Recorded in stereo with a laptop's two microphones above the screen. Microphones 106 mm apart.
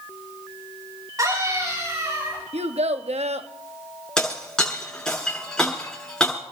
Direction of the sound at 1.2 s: 30° right (ahead or behind).